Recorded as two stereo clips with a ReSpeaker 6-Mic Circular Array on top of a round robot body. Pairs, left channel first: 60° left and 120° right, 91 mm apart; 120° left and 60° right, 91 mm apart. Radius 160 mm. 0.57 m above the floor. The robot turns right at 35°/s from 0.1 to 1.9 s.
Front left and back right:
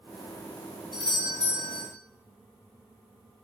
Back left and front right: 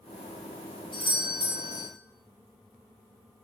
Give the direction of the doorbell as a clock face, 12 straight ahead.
9 o'clock.